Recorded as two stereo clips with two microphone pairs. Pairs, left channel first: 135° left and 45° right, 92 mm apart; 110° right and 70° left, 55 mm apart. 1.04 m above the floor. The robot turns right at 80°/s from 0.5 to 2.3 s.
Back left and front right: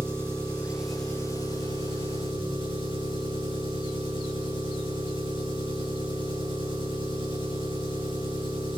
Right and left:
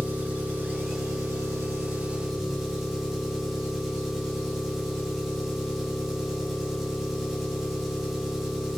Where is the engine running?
15° left, 5 m; by 8.8 s 160° left, 5 m.